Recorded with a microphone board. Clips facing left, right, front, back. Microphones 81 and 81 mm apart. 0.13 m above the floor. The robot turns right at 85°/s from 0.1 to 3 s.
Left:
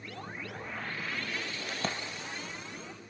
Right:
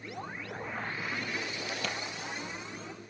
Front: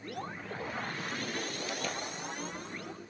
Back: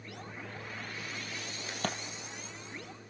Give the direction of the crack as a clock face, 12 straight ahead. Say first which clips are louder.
Left 3 dB, back 4 dB; 8 o'clock.